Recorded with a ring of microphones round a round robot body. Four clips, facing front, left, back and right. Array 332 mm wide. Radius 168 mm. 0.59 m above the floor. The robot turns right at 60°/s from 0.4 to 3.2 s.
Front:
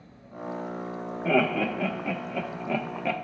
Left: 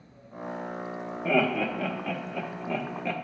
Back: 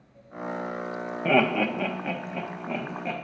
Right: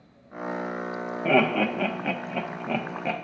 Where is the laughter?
150° right, 0.9 m; by 3.1 s 35° right, 0.9 m.